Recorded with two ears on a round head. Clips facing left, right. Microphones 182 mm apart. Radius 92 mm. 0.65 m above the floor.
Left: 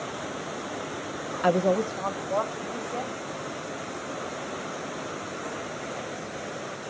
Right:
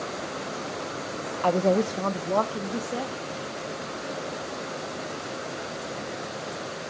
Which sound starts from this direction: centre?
A woman speaking, at 1.4 s.